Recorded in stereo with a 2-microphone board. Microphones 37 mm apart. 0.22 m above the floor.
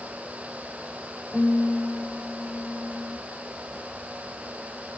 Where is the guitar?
20° right (ahead or behind), 6 m.